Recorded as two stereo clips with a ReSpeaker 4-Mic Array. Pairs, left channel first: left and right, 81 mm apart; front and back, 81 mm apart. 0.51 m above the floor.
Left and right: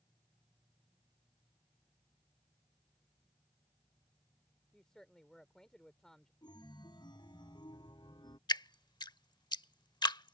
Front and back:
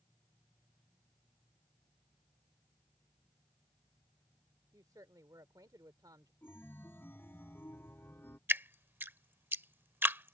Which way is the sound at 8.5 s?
115° left.